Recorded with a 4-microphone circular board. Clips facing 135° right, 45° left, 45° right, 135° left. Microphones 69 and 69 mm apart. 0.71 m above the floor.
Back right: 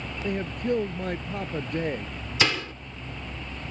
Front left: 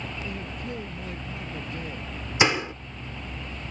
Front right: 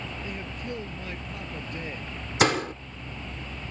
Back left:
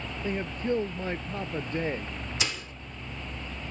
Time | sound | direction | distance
0.2 | a man speaking | 170° right | ?
2.4 | a door slam | 20° right | ?